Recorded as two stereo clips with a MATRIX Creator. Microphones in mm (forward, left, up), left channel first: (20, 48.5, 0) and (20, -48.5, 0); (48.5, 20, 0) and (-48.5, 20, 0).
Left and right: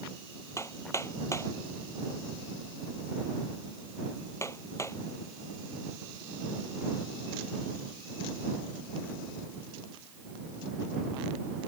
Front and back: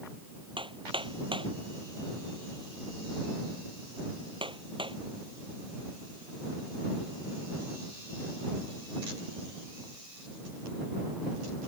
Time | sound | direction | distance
0.6 | hammering | 150° left | ?